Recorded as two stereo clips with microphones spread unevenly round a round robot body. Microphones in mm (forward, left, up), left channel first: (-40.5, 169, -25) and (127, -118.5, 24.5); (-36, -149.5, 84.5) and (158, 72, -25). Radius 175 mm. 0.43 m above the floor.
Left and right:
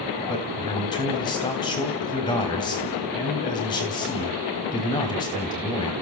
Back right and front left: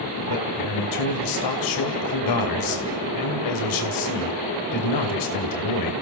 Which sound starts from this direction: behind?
A man speaking, at 0.3 s.